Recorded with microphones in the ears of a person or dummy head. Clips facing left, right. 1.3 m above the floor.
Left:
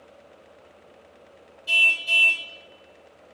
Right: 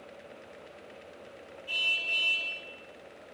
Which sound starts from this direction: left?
A car horn, at 1.7 s.